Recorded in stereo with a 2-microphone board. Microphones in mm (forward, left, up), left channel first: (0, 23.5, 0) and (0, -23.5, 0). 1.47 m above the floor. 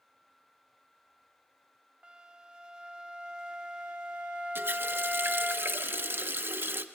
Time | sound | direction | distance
2.0 | a flute | 15° right (ahead or behind) | 1.3 m
4.5 | a running tap | 50° right (ahead or behind) | 0.9 m